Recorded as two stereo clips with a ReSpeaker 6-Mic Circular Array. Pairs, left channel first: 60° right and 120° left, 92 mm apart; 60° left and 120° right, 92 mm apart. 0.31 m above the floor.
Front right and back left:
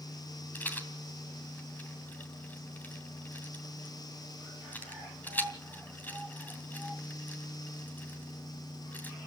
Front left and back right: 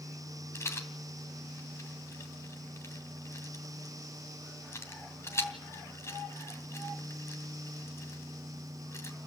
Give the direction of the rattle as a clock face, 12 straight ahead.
12 o'clock.